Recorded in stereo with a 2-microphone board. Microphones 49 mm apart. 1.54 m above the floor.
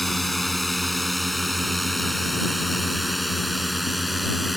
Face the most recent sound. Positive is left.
turn(degrees=0)  # may be behind; listen again after turning